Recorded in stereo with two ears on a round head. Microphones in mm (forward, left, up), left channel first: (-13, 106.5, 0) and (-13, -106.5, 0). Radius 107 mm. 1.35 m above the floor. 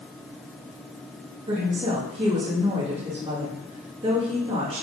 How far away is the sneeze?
No sneeze in this recording.